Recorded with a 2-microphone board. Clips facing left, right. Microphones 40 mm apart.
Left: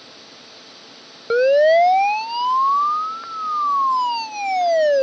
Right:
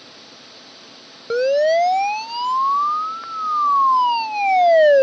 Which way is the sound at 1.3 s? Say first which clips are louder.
Left 3 dB; 25° left (ahead or behind).